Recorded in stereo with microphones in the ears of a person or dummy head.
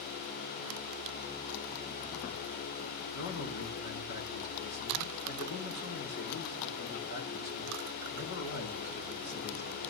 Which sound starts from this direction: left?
A man speaking, at 3.1 s.